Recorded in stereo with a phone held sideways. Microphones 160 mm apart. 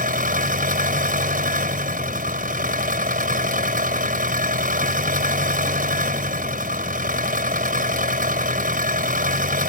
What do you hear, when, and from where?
0.0 s an engine running: 60° right (ahead or behind)